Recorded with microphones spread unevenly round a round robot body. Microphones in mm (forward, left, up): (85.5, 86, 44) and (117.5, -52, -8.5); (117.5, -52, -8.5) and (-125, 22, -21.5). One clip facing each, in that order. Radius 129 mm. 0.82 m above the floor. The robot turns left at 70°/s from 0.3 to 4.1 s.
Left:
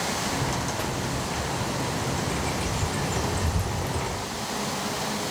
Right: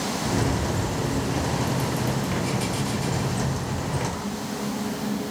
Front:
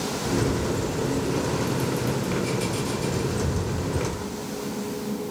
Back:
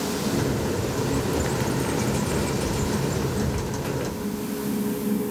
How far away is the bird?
About 3.5 m.